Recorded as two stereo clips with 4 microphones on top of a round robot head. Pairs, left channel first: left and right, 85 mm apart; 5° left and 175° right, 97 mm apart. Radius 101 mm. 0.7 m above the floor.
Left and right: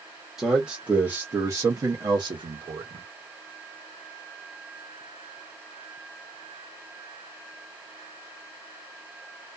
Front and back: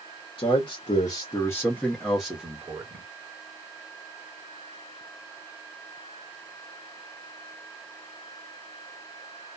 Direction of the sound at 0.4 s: 5° right.